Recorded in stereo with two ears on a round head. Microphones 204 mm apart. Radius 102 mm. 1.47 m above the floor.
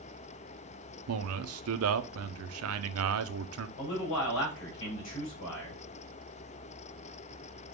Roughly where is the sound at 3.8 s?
Left.